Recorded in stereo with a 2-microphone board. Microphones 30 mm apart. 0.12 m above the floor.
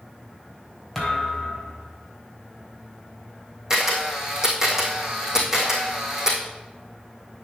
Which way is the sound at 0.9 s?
5° left (ahead or behind).